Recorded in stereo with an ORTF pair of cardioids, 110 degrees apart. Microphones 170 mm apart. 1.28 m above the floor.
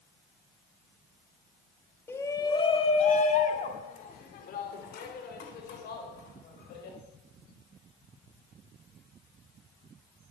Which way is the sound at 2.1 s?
15° left.